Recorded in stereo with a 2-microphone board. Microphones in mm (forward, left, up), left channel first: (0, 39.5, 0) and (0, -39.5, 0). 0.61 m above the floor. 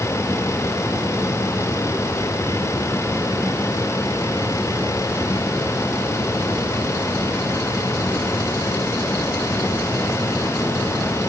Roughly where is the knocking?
No knocking in this recording.